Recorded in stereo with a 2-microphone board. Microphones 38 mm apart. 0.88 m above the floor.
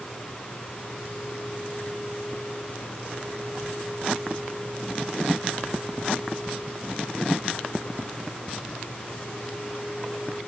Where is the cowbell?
No cowbell in this recording.